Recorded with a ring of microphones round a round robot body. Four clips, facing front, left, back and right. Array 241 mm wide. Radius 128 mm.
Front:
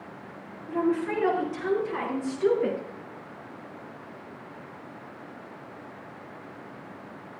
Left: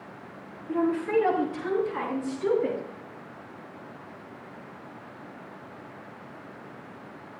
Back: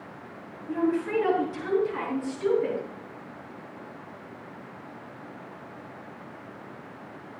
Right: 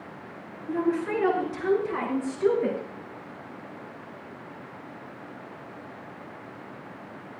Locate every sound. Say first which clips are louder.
0.7 s a woman speaking: left 1 dB, even; 90° right, 6.5 m; by 2.8 s 75° right, 4 m